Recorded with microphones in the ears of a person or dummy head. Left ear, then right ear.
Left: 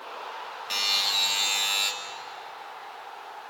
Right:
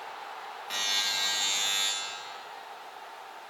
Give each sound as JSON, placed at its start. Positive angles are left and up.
{"t": 0.7, "sound": "a buzzer", "side_deg": 25, "distance_m": 3.0}